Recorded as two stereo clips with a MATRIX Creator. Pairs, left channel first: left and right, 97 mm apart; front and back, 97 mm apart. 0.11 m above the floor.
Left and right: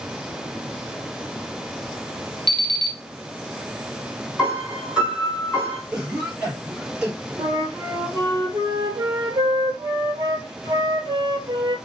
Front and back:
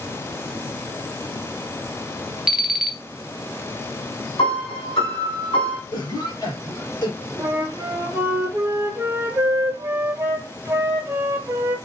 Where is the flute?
125° right, 1.0 m.